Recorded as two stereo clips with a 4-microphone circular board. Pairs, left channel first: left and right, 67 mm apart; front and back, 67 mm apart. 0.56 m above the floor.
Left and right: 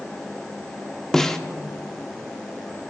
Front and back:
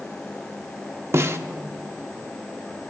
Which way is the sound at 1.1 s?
170° left.